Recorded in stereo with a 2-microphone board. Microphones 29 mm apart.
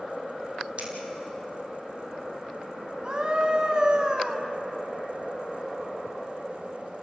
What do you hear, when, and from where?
0.8 s scissors: 40° right (ahead or behind), 4 m
3.0 s a scream: 35° right (ahead or behind), 1.3 m